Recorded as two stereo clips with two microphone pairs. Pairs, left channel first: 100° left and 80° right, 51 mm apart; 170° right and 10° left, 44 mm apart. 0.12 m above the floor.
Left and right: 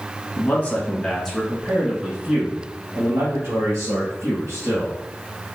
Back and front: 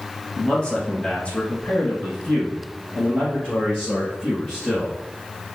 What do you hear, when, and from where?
0.4 s a man speaking: 135° left, 1.5 m; by 5.0 s 100° right, 3 m